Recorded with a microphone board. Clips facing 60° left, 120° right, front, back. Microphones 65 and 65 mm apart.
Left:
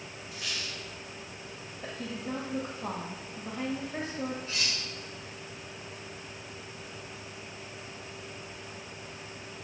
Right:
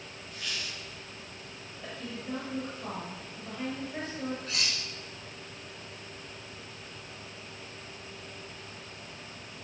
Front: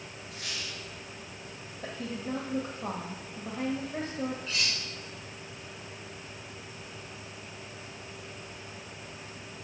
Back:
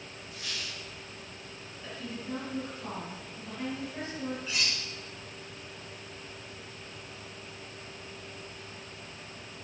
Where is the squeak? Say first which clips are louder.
Even, even; 20° right, 3.5 m.